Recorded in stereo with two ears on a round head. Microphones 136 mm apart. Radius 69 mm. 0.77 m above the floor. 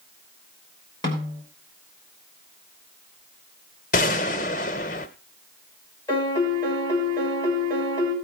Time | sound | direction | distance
1.0 | a snare drum | 30° left (ahead or behind) | 4 m
3.9 | a gunshot | 60° left (ahead or behind) | 0.9 m
6.1 | a piano | 20° left (ahead or behind) | 3.5 m